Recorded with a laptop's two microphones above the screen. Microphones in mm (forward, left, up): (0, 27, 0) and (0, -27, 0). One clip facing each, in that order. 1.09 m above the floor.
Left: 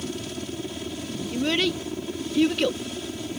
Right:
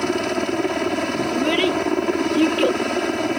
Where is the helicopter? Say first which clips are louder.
Right 12 dB; 65° right (ahead or behind).